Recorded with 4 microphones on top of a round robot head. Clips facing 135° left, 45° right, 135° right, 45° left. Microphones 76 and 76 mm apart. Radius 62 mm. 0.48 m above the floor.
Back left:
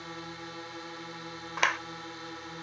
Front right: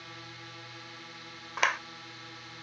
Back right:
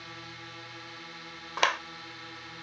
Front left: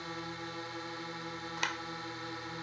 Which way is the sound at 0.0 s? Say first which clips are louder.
Back left 6 dB, front left 4 dB; 95° left.